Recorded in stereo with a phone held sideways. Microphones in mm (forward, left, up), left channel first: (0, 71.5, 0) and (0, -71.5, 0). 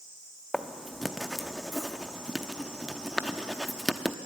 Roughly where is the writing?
Centre.